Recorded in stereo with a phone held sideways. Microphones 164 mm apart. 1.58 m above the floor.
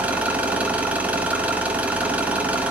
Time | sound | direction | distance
0.0 | an engine running | 10° right (ahead or behind) | 2.5 m